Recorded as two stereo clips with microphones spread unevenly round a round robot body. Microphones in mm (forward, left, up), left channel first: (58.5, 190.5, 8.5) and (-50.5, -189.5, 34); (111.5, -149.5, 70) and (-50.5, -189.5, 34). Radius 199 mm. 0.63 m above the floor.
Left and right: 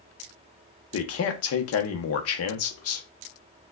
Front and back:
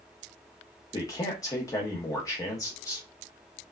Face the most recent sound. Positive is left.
turn(degrees=90)